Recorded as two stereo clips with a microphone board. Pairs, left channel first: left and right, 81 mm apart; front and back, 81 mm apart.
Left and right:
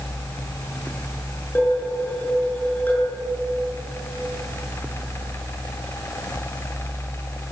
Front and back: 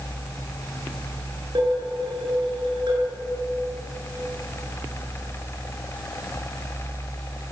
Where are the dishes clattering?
160° left, 9 m.